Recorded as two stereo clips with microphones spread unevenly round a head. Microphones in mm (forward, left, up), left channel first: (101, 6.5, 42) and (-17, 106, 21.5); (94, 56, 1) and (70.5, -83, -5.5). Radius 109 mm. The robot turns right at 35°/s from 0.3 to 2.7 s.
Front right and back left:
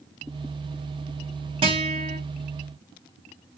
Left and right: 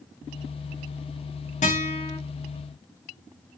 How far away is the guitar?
About 1.6 m.